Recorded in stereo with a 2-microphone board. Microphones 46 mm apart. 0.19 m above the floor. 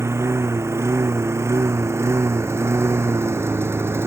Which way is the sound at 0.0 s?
80° right.